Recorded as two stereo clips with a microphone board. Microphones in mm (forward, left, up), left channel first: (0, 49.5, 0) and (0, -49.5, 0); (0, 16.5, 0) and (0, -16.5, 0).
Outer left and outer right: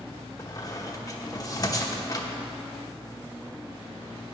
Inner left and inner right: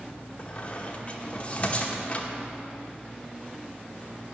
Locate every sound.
0.4 s a squeak: 35° left (ahead or behind), 0.9 m